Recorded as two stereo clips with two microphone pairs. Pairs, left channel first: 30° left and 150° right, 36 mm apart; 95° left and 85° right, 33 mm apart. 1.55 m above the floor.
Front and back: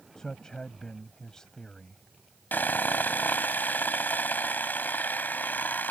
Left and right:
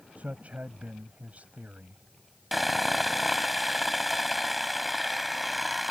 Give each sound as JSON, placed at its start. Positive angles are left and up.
{"t": 0.2, "sound": "a man speaking", "azimuth_deg": -45}
{"t": 2.5, "sound": "sawing", "azimuth_deg": 0}